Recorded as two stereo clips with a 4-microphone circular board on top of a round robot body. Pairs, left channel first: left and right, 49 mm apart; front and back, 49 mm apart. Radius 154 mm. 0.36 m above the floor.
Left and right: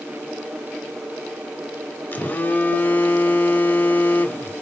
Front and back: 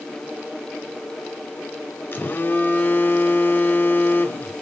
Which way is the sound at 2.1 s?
40° left.